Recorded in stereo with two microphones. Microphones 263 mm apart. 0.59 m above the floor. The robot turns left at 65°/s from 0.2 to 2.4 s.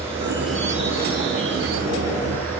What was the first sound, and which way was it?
An insect, 160° right.